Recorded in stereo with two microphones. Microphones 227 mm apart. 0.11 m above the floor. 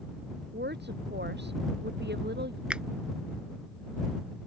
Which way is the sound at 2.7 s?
5° right (ahead or behind).